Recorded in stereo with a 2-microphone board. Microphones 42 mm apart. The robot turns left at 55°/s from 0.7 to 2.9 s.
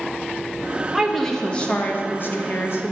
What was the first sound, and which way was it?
A woman speaking, 175° right.